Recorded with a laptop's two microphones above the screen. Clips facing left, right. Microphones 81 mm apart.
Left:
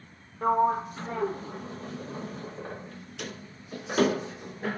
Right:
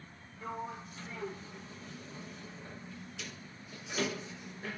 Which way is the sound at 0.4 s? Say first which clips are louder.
Left 17 dB; 55° left (ahead or behind).